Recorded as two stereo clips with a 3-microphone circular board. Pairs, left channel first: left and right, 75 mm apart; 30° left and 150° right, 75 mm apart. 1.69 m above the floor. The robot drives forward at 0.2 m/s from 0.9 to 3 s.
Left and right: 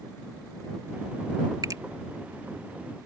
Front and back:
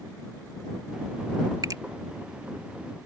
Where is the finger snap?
120° right.